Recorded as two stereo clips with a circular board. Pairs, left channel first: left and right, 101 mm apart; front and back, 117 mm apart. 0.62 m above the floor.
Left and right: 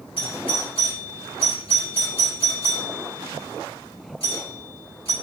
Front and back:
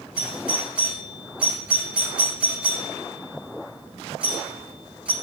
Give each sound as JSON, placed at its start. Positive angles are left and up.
{"t": 0.2, "sound": "a doorbell", "azimuth_deg": 100, "distance_m": 4.0}